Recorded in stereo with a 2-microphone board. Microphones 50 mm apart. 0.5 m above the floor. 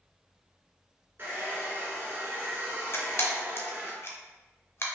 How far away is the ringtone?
I don't hear a ringtone.